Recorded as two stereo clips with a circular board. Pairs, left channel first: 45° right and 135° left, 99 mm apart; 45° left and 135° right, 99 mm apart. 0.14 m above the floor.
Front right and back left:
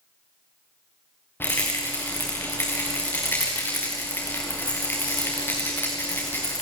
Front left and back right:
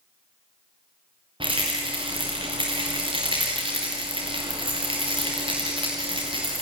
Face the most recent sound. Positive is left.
turn(degrees=-110)